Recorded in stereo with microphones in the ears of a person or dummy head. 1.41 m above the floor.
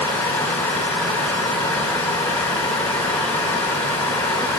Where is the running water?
10° left (ahead or behind), 1.1 m.